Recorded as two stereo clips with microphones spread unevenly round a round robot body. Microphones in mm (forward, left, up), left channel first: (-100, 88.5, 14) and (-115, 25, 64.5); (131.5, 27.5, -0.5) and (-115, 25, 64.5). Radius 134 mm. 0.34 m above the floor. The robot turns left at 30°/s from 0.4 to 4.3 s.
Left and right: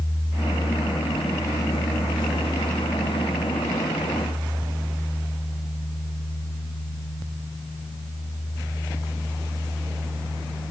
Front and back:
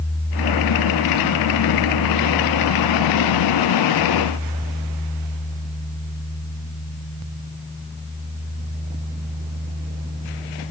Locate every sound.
Only background noise.